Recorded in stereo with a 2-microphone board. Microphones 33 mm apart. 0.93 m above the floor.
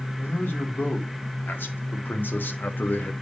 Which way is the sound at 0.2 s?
80° left.